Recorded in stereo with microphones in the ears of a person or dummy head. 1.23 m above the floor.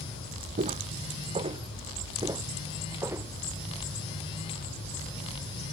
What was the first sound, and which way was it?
Footsteps, 35° right (ahead or behind).